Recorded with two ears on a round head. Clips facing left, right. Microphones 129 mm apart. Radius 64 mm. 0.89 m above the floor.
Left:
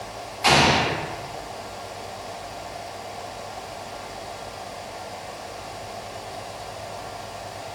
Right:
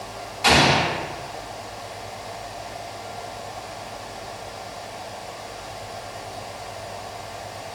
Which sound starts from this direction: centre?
An explosion, at 0.4 s.